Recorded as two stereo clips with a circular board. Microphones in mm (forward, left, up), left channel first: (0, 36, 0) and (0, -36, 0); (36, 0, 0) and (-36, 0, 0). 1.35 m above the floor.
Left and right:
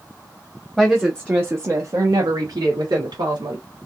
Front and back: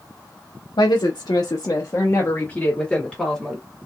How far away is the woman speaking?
About 1.1 m.